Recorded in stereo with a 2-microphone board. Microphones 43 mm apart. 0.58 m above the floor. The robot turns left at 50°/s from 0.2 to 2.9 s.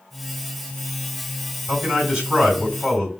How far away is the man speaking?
About 1.6 m.